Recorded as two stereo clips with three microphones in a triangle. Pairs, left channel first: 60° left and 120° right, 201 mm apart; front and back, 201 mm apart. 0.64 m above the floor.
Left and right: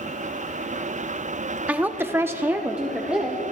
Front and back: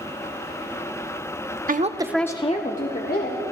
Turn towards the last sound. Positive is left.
turn(degrees=-35)